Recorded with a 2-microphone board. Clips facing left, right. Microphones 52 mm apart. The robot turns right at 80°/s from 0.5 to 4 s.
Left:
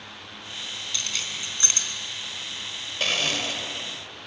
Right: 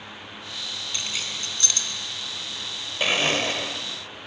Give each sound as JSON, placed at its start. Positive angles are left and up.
{"t": 0.9, "sound": "keys jangling", "side_deg": -25, "distance_m": 4.0}
{"t": 3.0, "sound": "a blender", "azimuth_deg": -165, "distance_m": 1.9}